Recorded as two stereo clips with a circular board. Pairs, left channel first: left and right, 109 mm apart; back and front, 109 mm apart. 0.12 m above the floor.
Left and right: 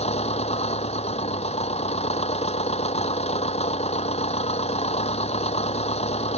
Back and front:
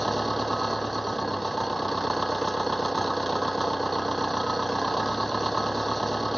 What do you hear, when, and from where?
0.0 s an engine running: 90° left